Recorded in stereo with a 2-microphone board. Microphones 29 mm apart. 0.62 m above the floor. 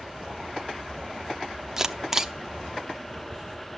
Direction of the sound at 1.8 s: 15° right (ahead or behind).